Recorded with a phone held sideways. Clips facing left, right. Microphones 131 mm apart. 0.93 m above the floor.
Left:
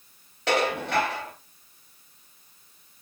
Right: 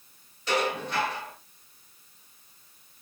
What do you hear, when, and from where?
0.5 s dishes clattering: 85° left, 3 m